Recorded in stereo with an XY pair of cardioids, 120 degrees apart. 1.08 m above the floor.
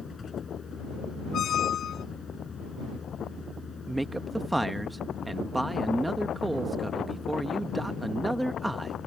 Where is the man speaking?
10° right.